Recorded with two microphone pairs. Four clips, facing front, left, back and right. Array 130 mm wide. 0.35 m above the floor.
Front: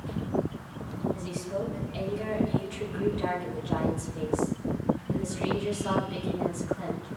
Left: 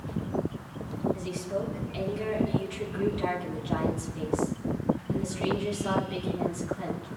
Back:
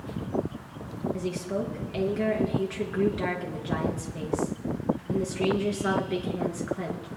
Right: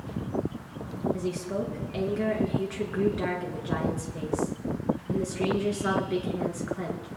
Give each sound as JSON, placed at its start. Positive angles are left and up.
{"t": 1.1, "sound": "a woman speaking", "azimuth_deg": -130, "distance_m": 4.5}